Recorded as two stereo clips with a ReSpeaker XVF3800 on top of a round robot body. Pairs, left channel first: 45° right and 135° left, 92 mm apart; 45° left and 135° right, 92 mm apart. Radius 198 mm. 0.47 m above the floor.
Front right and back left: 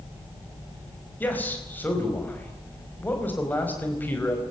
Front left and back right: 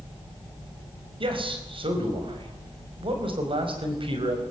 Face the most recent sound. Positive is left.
turn(degrees=-115)